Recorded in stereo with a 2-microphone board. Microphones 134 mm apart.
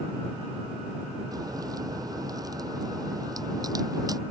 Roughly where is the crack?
Right.